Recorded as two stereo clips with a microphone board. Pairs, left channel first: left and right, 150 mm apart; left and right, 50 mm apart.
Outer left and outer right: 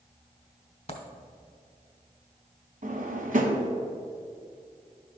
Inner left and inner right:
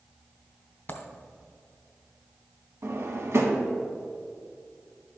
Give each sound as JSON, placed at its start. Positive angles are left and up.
{"t": 0.9, "sound": "a dropped coin", "side_deg": 40, "distance_m": 0.8}
{"t": 2.8, "sound": "a drawer", "side_deg": -60, "distance_m": 0.9}